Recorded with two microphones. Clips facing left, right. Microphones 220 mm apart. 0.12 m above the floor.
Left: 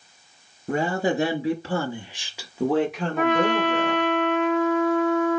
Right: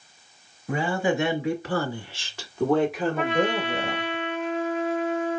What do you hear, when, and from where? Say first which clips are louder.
0.7 s a woman speaking: left 1 dB; 45° left (ahead or behind), 1.5 m; by 4.2 s 25° right (ahead or behind), 1.5 m
3.2 s a trumpet: left 6 dB; 70° left (ahead or behind), 2.5 m